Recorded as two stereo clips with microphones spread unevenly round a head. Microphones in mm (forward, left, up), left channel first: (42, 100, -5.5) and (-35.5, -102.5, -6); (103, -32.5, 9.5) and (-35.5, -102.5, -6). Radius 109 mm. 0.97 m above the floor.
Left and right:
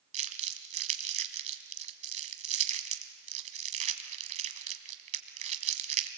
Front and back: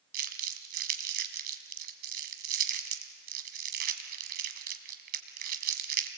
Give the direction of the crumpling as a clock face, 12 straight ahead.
5 o'clock.